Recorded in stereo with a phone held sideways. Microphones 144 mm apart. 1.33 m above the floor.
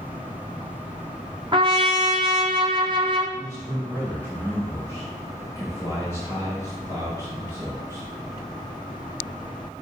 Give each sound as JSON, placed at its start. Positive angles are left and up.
{"t": 1.5, "sound": "a trumpet", "side_deg": -35, "distance_m": 1.0}
{"t": 3.4, "sound": "a man speaking", "side_deg": -20, "distance_m": 5.0}